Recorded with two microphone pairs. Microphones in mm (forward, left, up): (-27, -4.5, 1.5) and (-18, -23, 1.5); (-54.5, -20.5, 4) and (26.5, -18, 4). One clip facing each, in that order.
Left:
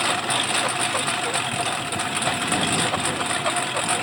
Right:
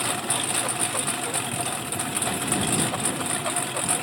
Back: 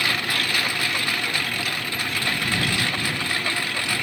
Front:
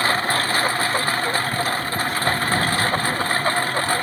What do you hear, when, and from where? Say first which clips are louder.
0.0 s a lawn mower: left 5 dB, front 5 dB; 55° left